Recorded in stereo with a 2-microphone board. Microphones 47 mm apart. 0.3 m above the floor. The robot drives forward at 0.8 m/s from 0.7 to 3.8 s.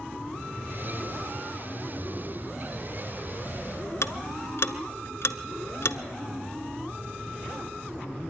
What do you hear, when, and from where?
4.0 s ticking: 65° left (ahead or behind), 0.7 m